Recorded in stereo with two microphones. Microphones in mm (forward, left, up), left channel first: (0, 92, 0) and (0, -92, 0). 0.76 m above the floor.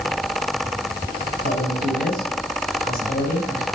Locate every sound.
1.4 s a man speaking: 55° left (ahead or behind), 5 m